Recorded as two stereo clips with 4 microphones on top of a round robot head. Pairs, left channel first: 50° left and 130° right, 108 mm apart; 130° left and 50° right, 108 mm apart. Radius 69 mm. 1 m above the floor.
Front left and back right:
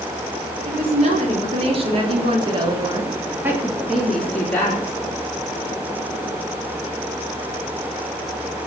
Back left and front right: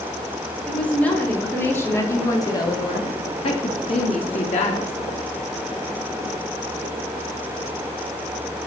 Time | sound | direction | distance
0.7 | a woman speaking | 150° right | 4 m